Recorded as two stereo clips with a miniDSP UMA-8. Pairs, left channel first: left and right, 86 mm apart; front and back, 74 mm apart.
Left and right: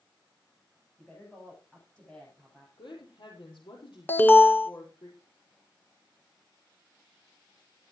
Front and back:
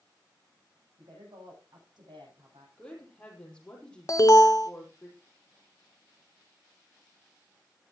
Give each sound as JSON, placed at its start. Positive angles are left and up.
{"t": 1.0, "sound": "a woman speaking", "azimuth_deg": 170, "distance_m": 10.0}
{"t": 2.8, "sound": "a woman speaking", "azimuth_deg": 75, "distance_m": 5.5}
{"t": 4.1, "sound": "an alarm", "azimuth_deg": 30, "distance_m": 1.2}